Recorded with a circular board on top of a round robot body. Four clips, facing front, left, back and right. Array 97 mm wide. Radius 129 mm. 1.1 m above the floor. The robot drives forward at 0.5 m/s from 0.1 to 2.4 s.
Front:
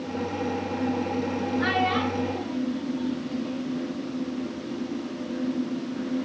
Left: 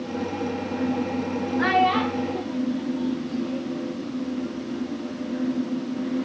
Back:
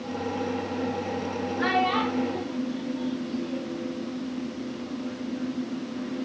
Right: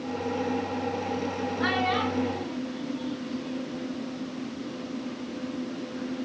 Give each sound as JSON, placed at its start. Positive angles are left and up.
{"t": 1.6, "sound": "a child speaking", "azimuth_deg": 95, "distance_m": 0.9}